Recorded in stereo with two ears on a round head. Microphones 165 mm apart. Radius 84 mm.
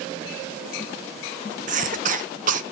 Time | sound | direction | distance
1.7 | a cough | 40° right (ahead or behind) | 0.8 m